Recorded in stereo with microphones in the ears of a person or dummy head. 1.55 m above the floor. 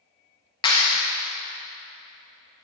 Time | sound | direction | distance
0.6 | a clap | 25° left (ahead or behind) | 0.6 m